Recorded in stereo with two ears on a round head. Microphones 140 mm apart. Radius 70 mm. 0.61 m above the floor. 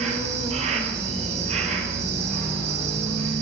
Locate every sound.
0.0 s an insect: 45° right (ahead or behind), 1.0 m